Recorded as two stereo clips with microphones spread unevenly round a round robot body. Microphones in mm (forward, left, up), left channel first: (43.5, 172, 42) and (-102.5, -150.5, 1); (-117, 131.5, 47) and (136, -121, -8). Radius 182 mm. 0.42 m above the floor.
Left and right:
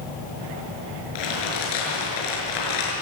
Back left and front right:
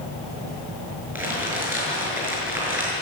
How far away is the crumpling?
About 7 m.